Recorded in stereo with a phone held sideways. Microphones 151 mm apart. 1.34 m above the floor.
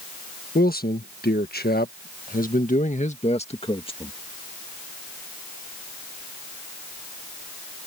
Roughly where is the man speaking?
Left.